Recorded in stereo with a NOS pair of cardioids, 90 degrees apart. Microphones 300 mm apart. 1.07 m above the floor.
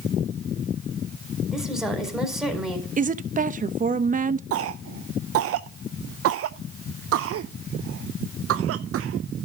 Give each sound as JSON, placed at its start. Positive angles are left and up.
{"t": 1.5, "sound": "a woman speaking", "azimuth_deg": 0, "distance_m": 4.5}
{"t": 3.0, "sound": "a woman speaking", "azimuth_deg": -30, "distance_m": 0.9}
{"t": 4.5, "sound": "a cough", "azimuth_deg": -60, "distance_m": 0.5}